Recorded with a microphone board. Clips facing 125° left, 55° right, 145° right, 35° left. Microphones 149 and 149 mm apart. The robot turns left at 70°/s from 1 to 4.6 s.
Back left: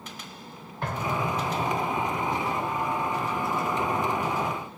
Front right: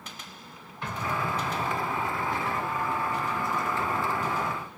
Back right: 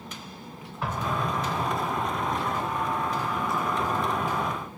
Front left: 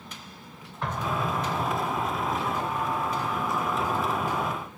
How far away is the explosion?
About 0.8 m.